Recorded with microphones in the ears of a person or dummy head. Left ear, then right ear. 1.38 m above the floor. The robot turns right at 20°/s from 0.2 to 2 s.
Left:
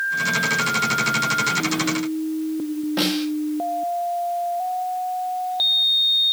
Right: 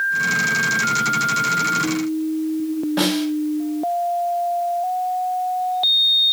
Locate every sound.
3.0 s a snare drum: 10° left (ahead or behind), 1.5 m